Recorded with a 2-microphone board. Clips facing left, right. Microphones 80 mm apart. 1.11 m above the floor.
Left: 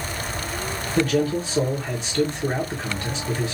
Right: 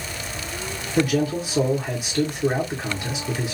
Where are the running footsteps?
I don't hear running footsteps.